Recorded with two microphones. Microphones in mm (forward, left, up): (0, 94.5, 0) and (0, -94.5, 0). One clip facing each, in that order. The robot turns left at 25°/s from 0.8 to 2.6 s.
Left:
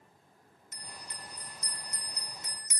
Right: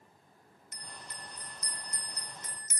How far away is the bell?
About 1.1 m.